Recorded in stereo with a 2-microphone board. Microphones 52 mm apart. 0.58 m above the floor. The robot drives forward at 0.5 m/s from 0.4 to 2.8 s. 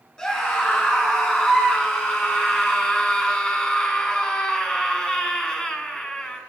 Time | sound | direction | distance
0.2 | a scream | 15° left (ahead or behind) | 8 m